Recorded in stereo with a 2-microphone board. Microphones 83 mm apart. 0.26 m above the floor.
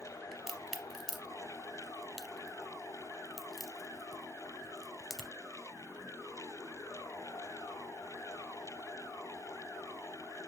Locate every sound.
0.3 s a crack: 5° right (ahead or behind), 0.6 m